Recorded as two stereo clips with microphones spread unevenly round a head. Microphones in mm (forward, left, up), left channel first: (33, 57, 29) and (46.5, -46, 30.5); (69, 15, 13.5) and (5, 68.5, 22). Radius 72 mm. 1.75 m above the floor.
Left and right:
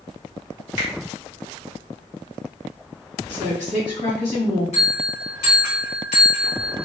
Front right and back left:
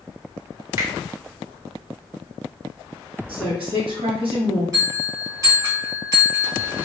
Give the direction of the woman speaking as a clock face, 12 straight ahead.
7 o'clock.